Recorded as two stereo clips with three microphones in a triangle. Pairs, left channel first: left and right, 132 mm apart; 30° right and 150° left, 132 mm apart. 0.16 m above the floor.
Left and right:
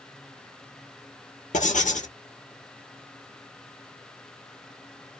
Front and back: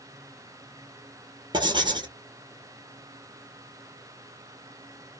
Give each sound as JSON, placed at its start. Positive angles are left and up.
{"t": 1.5, "sound": "writing", "azimuth_deg": 100, "distance_m": 1.1}